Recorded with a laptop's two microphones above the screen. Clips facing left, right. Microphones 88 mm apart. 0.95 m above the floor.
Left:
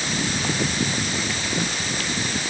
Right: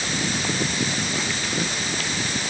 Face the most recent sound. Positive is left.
No sound to turn to.